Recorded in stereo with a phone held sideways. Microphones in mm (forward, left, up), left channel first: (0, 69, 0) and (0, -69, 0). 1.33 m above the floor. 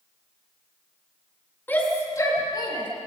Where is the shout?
15° left (ahead or behind), 4.5 m; by 2.9 s 35° left (ahead or behind), 5.5 m.